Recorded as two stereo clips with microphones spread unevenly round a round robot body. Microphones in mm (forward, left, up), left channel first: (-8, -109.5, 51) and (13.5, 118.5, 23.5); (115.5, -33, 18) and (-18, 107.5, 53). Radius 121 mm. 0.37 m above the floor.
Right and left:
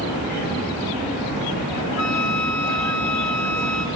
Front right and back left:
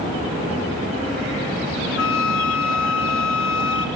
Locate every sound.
2.0 s a flute: 75° right, 1.0 m